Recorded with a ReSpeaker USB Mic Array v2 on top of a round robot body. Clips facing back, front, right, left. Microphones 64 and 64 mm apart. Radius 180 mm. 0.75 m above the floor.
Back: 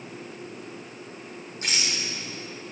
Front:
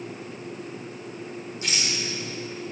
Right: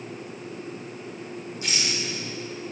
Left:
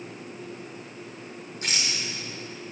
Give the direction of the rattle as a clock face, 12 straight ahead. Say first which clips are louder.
Even, even; 8 o'clock.